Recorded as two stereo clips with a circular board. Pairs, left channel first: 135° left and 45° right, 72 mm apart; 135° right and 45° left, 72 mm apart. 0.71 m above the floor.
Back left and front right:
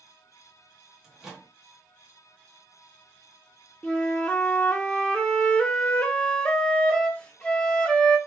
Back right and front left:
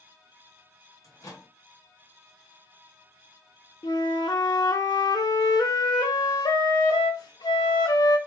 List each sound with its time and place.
1.0 s a microwave: 125° right, 1.1 m
3.8 s a flute: 150° right, 0.6 m